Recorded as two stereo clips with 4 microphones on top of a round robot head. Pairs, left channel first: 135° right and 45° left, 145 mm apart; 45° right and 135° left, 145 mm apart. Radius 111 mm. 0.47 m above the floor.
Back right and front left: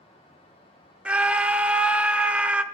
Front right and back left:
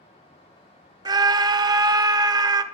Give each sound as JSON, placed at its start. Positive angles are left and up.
{"t": 1.1, "sound": "a scream", "azimuth_deg": 115, "distance_m": 0.7}